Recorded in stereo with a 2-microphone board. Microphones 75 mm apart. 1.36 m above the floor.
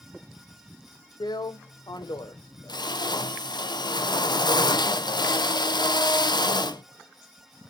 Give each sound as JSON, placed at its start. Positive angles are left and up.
{"t": 1.2, "sound": "a drill", "side_deg": 80, "distance_m": 0.6}